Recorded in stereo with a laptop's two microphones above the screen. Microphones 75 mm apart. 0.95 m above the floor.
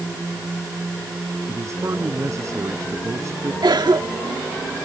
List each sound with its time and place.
1.5 s a man speaking: 40° right (ahead or behind)
3.6 s a cough: 80° right